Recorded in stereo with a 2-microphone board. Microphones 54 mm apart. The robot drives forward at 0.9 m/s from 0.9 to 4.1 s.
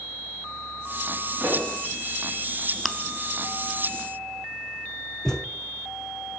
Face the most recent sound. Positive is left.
turn(degrees=10)  # may be behind; listen again after turning